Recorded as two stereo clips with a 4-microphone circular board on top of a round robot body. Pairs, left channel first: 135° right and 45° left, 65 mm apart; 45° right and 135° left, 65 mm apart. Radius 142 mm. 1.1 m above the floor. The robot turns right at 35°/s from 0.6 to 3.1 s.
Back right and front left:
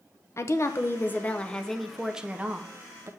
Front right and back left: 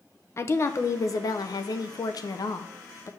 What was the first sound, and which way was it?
A woman speaking, 90° right.